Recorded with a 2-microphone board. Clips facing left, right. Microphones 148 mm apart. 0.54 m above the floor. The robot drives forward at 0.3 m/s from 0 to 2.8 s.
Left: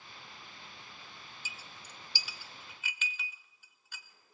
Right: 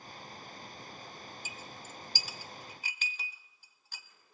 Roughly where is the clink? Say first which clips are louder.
Right 5 dB; right.